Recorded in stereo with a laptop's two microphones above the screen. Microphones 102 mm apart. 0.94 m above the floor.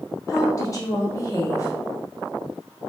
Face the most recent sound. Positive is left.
turn(degrees=30)  # may be behind; listen again after turning